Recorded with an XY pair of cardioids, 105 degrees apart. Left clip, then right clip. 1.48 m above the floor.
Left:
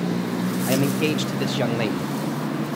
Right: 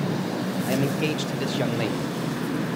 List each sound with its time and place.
0.7 s a man speaking: 25° left, 0.9 m